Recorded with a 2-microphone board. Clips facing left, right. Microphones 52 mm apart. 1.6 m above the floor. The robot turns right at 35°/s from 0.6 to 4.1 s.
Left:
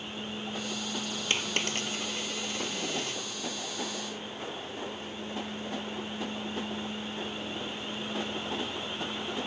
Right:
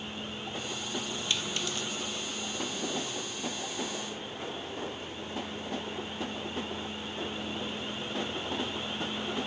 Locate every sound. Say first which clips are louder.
1.3 s a dropped coin: left 4 dB; 45° left (ahead or behind); by 3.2 s 65° left (ahead or behind)